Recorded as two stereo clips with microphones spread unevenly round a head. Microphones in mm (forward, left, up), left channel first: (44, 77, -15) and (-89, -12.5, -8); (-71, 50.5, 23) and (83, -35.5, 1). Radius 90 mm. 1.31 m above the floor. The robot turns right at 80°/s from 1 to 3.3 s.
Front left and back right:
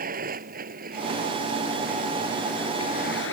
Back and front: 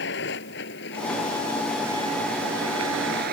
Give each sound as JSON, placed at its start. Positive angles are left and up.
{"t": 0.0, "sound": "a vehicle", "azimuth_deg": 180}